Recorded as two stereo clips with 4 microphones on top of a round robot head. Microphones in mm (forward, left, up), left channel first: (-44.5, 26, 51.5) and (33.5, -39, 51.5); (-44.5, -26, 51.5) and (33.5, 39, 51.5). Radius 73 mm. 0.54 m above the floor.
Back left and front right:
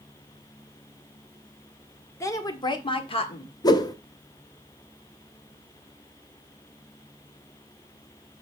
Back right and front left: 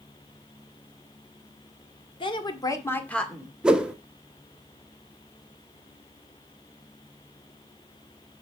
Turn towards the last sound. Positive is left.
turn(degrees=115)